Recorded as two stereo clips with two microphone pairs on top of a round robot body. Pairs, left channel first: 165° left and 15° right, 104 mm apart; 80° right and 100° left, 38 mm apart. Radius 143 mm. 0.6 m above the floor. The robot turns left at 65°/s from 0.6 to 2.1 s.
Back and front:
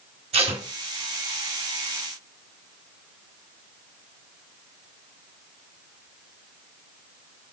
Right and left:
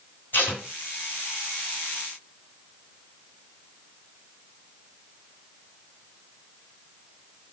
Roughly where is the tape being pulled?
Ahead right.